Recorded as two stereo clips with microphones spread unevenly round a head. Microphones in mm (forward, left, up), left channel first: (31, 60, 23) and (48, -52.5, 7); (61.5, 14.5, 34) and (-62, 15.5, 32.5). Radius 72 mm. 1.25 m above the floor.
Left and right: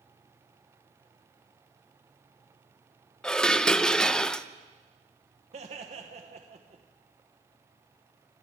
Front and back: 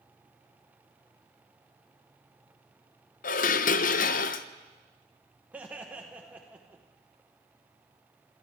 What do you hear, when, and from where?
3.2 s dishes clattering: 15° left, 0.5 m
5.5 s laughter: 105° right, 1.0 m